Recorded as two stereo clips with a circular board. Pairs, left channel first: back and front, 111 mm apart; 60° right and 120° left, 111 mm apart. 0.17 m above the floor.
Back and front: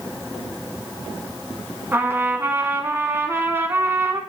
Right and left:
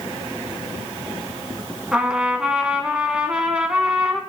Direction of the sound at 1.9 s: 50° left.